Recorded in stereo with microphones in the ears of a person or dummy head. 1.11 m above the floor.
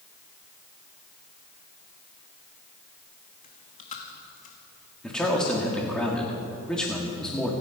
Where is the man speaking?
5° left (ahead or behind), 2 m.